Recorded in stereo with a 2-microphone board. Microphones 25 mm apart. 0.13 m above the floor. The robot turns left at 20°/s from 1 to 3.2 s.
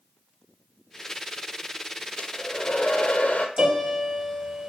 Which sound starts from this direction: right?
A piano, at 3.6 s.